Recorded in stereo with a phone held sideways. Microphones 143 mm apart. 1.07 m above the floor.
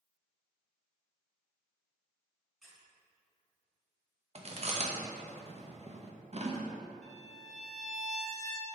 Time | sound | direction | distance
2.6 | a squeak | centre (ahead or behind) | 2.5 m
4.3 | chewing | 45° right (ahead or behind) | 0.9 m
7.0 | a violin | 55° right (ahead or behind) | 0.8 m